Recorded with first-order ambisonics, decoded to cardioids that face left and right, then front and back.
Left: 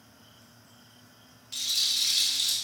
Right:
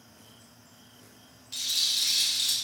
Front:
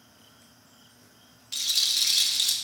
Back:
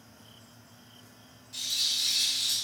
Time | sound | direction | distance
1.5 | a rattle | 5° left | 0.5 m